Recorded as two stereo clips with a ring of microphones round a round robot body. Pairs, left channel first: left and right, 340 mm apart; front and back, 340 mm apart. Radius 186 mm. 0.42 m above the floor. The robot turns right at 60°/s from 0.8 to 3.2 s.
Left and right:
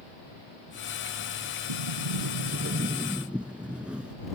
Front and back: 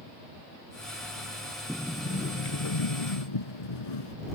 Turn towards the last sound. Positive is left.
turn(degrees=-5)